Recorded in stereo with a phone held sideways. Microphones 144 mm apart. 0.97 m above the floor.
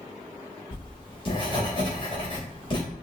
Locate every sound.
0.7 s writing: 40° left (ahead or behind), 3.5 m